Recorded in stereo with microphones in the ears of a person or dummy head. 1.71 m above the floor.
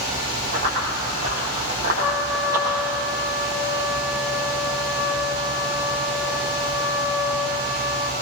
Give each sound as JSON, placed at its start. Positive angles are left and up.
{"t": 0.5, "sound": "running footsteps", "side_deg": -60, "distance_m": 6.0}
{"t": 2.0, "sound": "a trumpet", "side_deg": -5, "distance_m": 1.2}